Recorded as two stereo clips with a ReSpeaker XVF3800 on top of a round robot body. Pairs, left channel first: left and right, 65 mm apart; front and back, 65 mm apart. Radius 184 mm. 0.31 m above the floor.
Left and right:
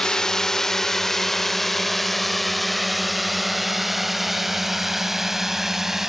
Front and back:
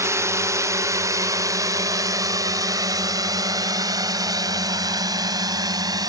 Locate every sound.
0.0 s a drone: 165° left; by 6.1 s 175° right